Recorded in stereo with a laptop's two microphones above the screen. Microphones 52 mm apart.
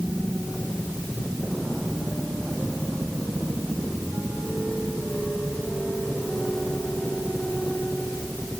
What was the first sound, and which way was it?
Only background noise.